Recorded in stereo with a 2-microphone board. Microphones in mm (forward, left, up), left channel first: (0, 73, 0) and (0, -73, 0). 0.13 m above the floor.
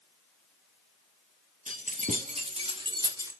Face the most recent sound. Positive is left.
turn(degrees=-20)  # may be behind; listen again after turning